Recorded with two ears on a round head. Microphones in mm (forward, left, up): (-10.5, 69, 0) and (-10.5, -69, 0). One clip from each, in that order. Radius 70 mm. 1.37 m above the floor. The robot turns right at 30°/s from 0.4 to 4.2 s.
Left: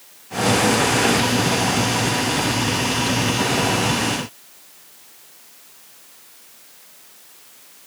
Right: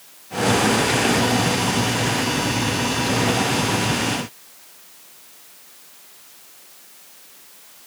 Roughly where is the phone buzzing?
I don't hear a phone buzzing.